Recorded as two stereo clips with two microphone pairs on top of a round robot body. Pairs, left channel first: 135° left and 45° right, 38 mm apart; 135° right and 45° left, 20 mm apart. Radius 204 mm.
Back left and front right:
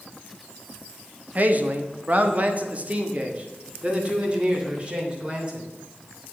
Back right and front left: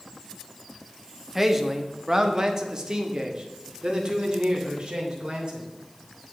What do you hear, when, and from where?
1.4 s a man speaking: 25° right, 1.4 m; by 5.7 s 15° left, 3.5 m